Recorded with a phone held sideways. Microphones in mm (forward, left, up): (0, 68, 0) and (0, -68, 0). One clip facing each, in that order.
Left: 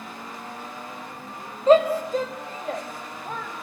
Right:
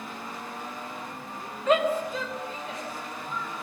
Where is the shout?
35° left (ahead or behind), 2.5 m; by 3.5 s 65° left (ahead or behind), 2.5 m.